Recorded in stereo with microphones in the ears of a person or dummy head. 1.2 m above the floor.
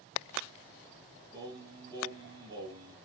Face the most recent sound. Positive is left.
turn(degrees=-25)  # may be behind; listen again after turning